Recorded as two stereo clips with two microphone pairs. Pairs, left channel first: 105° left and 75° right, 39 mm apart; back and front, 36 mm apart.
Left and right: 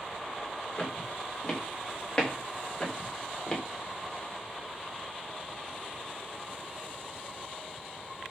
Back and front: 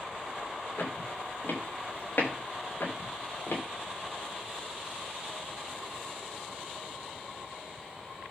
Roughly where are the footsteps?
Behind.